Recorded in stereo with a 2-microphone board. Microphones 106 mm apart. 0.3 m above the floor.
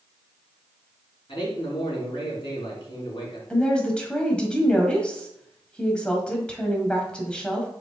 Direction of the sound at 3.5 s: 10° left (ahead or behind).